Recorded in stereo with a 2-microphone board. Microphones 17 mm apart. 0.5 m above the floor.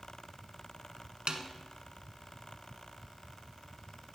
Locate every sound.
1.3 s a snare drum: 75° right (ahead or behind), 0.9 m